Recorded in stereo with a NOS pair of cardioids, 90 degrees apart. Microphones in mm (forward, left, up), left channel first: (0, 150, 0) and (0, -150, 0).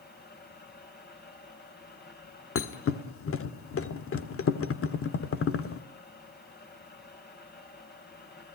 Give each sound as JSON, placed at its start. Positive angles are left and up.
{"t": 0.0, "sound": "a fan", "azimuth_deg": 35, "distance_m": 6.0}
{"t": 2.5, "sound": "a thud", "azimuth_deg": 50, "distance_m": 1.8}